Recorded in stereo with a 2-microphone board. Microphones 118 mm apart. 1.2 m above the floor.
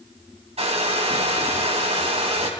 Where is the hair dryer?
70° right (ahead or behind), 2.5 m.